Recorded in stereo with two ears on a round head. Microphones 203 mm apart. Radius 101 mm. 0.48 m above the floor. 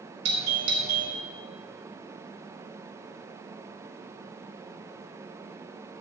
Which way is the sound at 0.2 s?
25° right (ahead or behind).